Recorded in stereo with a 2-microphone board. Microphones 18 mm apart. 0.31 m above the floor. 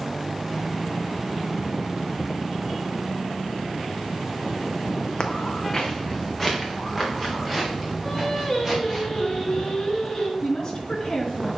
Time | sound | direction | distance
5.2 | footsteps | 40° left (ahead or behind) | 1.0 m
8.0 | singing | 35° left (ahead or behind) | 3.5 m
10.4 | a woman speaking | 40° left (ahead or behind) | 3.5 m